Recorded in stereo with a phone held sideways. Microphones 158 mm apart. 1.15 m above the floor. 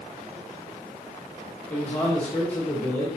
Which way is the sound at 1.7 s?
10° left (ahead or behind).